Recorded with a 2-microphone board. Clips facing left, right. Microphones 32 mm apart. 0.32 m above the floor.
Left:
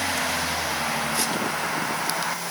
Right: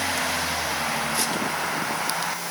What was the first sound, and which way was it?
Only background noise.